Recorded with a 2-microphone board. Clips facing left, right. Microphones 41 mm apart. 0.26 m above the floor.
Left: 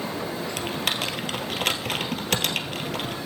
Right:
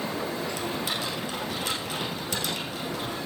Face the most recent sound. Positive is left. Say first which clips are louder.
# left 3 dB
turn(degrees=65)  # may be behind; listen again after turning